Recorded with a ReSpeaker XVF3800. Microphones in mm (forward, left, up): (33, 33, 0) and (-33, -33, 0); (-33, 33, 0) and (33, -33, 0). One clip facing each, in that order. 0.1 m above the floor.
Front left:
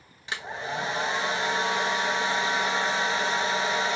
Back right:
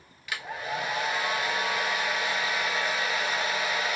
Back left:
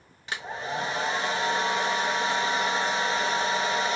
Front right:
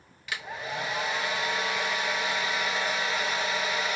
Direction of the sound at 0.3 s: 95° left.